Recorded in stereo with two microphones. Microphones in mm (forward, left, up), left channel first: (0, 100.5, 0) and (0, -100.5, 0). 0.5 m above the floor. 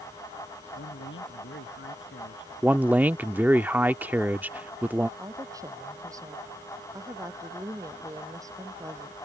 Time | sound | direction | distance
0.8 | a man speaking | 70° left (ahead or behind) | ?
2.6 | a man speaking | 10° right (ahead or behind) | ?
5.2 | a woman speaking | 15° right (ahead or behind) | ?